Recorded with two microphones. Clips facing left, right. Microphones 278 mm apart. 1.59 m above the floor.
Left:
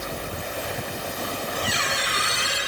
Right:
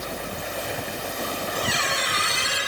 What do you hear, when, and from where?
1.6 s a squeak: 30° left (ahead or behind), 5 m